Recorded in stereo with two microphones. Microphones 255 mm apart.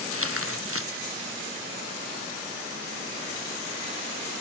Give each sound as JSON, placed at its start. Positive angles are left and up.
{"t": 0.1, "sound": "tearing paper", "side_deg": -60}